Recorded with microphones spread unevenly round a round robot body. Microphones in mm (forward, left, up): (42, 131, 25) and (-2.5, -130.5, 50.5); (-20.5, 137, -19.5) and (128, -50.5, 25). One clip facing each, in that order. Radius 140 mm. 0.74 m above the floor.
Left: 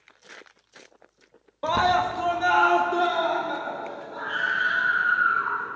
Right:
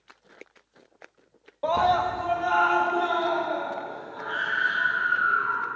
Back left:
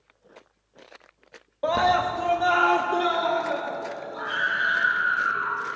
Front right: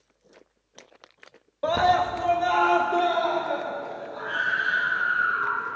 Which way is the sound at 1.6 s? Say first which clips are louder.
Even, even; 45° left.